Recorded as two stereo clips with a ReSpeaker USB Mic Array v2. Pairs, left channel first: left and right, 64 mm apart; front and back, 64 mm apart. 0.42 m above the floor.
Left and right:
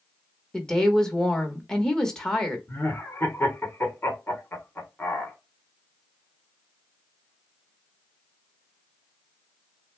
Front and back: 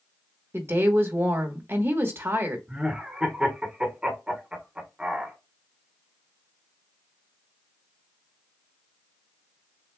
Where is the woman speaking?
165° left, 1.1 m.